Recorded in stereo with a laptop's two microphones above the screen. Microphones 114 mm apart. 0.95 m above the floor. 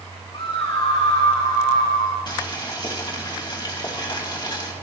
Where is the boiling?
40° left (ahead or behind), 2.5 m.